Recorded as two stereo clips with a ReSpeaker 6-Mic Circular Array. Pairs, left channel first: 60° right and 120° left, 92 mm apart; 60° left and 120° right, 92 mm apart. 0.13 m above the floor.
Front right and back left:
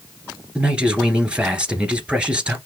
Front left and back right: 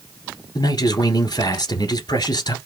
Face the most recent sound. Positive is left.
turn(degrees=40)